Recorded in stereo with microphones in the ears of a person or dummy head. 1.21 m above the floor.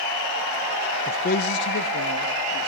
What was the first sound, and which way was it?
A man speaking, 30° left (ahead or behind).